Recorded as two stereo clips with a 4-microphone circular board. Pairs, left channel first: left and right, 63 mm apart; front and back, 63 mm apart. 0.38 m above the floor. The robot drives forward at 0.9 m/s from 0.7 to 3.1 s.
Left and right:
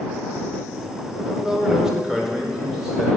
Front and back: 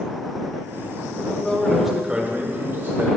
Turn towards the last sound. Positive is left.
turn(degrees=-170)